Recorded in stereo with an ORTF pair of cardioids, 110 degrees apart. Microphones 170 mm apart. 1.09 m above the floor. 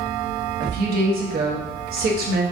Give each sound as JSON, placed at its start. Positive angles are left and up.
{"t": 0.6, "sound": "a woman speaking", "azimuth_deg": -65, "distance_m": 1.1}